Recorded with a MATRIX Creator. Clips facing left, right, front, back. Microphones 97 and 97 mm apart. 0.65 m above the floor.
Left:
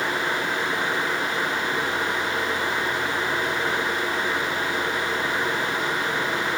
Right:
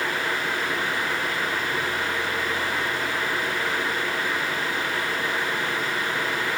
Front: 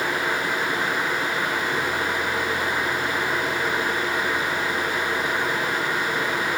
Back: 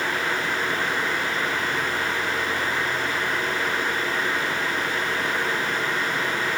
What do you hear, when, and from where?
Only background noise.